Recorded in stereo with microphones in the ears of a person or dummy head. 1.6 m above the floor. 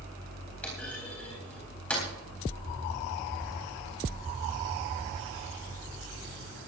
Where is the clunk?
10° left (ahead or behind), 3.5 m.